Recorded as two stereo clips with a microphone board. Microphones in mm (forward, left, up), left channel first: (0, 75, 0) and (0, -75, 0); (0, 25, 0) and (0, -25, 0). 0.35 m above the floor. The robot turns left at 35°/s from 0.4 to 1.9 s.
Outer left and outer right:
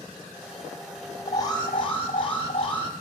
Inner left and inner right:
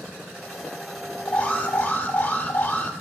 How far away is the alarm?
About 0.7 m.